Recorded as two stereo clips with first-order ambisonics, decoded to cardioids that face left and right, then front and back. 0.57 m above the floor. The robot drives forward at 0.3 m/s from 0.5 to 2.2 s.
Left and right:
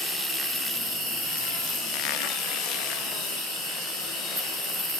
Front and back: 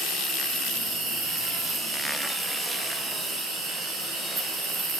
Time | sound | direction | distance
0.0 | an insect | 130° right | 4.5 m